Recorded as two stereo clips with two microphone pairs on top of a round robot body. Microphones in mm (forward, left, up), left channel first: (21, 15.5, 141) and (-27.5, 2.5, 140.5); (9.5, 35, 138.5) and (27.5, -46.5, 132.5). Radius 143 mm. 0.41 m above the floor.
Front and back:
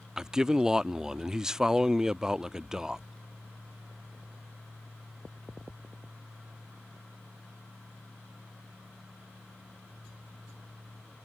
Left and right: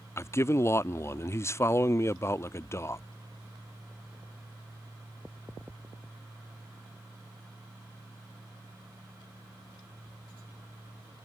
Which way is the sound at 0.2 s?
130° left.